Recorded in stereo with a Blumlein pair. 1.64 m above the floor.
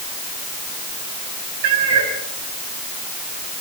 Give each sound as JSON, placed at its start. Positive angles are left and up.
{"t": 1.6, "sound": "a cat meowing", "azimuth_deg": -50, "distance_m": 4.0}